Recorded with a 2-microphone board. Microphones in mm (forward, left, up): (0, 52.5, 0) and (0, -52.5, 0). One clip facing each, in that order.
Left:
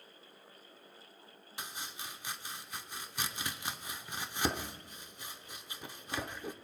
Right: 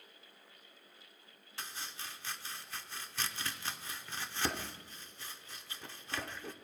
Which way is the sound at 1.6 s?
15° left (ahead or behind).